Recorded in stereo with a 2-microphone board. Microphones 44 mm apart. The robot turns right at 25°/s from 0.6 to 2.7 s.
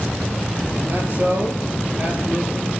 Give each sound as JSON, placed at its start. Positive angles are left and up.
{"t": 0.9, "sound": "a man speaking", "azimuth_deg": -70, "distance_m": 3.0}